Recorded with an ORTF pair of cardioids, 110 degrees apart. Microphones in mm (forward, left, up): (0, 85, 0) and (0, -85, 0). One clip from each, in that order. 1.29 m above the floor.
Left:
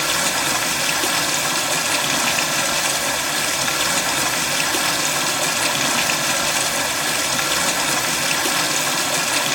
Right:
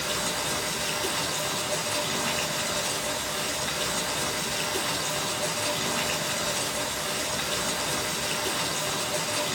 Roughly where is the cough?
I don't hear a cough.